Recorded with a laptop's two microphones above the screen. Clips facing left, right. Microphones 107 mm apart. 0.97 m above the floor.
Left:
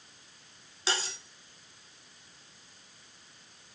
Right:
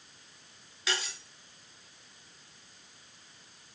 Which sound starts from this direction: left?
Cutlery clinking, at 0.9 s.